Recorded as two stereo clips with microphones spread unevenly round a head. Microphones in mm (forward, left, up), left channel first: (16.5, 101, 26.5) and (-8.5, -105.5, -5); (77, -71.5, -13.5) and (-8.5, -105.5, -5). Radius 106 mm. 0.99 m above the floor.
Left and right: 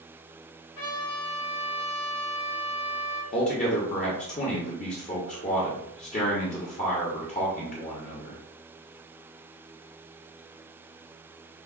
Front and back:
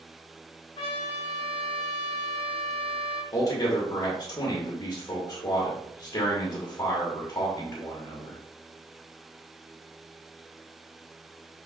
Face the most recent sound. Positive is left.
turn(degrees=35)